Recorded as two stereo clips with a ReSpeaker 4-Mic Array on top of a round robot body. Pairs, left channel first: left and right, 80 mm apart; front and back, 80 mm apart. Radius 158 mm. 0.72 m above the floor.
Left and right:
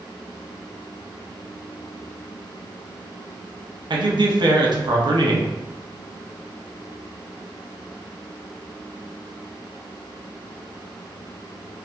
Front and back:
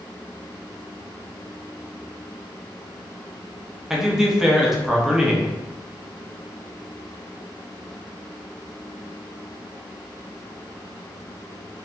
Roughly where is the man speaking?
Right.